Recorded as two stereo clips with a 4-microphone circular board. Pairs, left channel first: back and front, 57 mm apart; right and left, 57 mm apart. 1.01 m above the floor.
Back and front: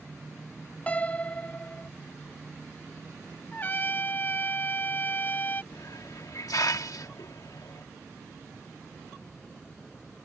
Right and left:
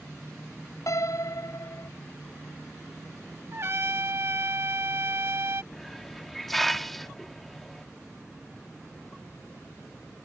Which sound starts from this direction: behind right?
A piano, at 0.9 s.